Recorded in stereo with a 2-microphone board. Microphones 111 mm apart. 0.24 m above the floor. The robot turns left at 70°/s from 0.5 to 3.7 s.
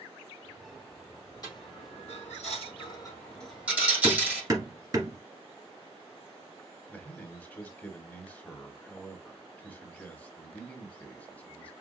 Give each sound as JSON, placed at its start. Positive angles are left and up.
{"t": 1.4, "sound": "a dropped coin", "side_deg": 35, "distance_m": 3.5}
{"t": 4.0, "sound": "hammering", "side_deg": -35, "distance_m": 1.9}
{"t": 6.9, "sound": "a man speaking", "side_deg": 15, "distance_m": 1.3}